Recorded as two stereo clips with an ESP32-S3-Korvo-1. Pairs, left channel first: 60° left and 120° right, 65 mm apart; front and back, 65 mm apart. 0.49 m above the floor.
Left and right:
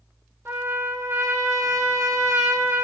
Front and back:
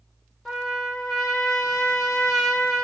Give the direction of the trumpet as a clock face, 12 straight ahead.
3 o'clock.